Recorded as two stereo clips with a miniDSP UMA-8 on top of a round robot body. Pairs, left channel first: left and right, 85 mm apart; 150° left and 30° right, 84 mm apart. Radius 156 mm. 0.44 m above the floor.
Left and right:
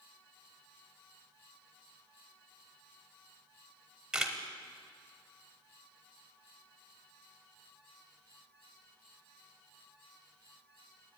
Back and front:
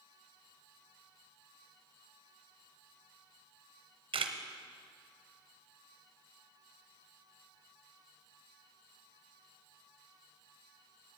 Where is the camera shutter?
5° right, 0.6 m.